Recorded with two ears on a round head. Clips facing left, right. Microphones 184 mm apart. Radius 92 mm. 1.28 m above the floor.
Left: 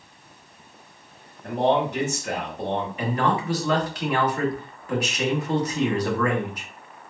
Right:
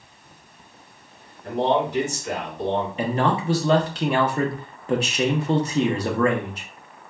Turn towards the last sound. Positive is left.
turn(degrees=-25)  # may be behind; listen again after turning